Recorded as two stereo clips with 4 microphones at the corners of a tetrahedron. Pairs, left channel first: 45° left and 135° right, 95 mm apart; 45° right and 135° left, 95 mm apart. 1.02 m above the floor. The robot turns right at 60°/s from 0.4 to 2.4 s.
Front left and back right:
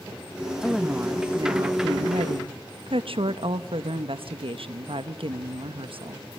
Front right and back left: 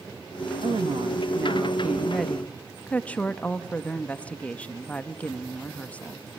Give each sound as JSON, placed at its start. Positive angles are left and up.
{"t": 0.6, "sound": "a woman speaking", "azimuth_deg": 135, "distance_m": 1.1}